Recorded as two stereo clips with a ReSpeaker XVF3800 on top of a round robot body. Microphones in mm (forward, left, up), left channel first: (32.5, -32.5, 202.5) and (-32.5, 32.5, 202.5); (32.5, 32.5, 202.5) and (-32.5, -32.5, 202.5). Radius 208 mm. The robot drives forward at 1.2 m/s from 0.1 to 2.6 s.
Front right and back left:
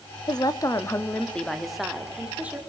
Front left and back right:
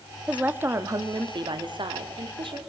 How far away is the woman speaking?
About 1.8 m.